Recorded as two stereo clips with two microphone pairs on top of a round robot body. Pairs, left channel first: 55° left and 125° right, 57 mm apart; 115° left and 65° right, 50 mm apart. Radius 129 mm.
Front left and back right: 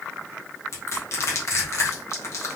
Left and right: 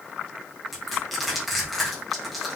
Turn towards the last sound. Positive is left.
turn(degrees=25)